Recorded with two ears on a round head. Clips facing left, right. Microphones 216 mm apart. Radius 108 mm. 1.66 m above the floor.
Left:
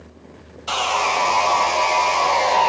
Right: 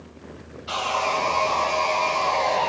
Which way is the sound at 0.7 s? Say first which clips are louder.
Left 3 dB; 65° left (ahead or behind).